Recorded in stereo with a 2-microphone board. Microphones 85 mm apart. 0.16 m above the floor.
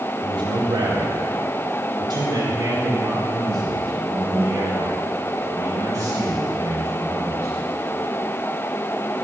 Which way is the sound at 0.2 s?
70° right (ahead or behind).